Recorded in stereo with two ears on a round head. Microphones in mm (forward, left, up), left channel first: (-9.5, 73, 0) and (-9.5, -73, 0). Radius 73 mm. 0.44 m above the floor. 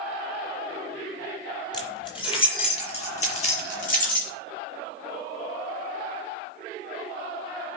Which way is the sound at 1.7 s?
25° left (ahead or behind).